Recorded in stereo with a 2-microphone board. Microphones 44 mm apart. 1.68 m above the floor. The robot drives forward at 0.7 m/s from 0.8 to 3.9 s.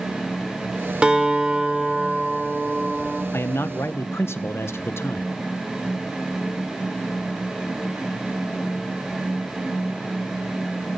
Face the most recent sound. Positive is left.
turn(degrees=75)  # may be behind; listen again after turning